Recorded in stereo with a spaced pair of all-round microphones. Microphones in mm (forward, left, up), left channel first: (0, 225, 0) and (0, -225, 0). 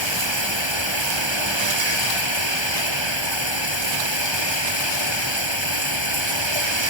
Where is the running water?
75° right (ahead or behind).